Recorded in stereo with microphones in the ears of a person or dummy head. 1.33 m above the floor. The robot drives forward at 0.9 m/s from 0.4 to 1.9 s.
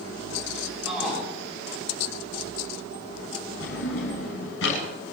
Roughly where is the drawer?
Left.